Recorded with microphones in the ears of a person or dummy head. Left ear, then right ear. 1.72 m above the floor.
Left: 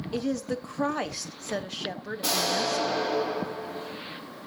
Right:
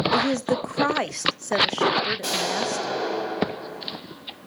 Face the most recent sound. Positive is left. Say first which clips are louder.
# right 1 dB
turn(degrees=-10)  # may be behind; listen again after turning